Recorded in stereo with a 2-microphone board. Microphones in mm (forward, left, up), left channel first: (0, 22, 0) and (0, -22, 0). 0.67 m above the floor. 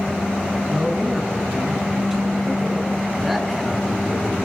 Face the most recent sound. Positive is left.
turn(degrees=0)  # may be behind; listen again after turning